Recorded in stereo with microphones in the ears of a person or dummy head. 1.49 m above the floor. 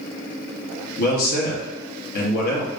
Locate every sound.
1.0 s a man speaking: 60° left (ahead or behind), 1.1 m